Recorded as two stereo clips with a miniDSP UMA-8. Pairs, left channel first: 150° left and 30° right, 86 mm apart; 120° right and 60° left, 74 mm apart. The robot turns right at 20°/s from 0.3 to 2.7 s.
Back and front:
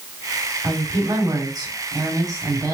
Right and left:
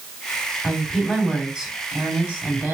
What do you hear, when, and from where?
0.6 s a woman speaking: 35° right, 1.4 m; by 2.8 s 5° left, 1.4 m